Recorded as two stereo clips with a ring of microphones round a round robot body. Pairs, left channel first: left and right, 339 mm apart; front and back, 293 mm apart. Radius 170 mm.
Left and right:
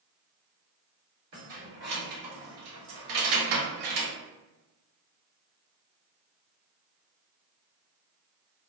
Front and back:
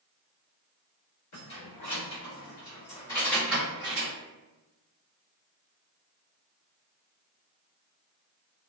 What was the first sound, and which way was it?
Keys jangling, 50° right.